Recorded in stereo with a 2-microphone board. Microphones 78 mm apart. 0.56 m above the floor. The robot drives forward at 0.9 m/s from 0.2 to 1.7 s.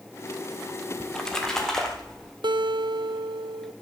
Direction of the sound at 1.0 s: 10° left (ahead or behind).